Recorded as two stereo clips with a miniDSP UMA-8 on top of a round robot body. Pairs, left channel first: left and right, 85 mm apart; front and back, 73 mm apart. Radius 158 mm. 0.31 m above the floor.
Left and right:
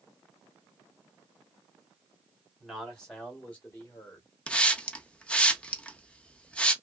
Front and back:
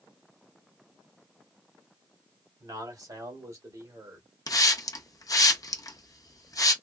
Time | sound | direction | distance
2.6 | a man speaking | straight behind | 2.5 m
4.5 | a hiss | 15° left | 0.8 m